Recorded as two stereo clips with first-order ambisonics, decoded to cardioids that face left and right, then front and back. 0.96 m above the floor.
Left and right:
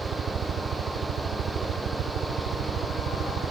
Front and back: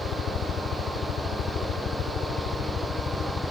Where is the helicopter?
40° right; by 3.5 s 50° right.